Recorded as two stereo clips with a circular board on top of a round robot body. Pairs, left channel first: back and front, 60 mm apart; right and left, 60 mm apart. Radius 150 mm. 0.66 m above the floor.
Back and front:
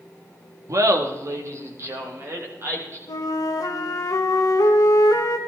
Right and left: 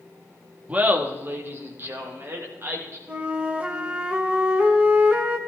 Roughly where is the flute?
Behind.